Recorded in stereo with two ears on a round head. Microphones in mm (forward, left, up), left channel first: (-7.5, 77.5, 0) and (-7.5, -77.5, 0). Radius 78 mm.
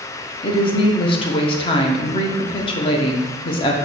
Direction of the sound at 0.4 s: 30° left (ahead or behind).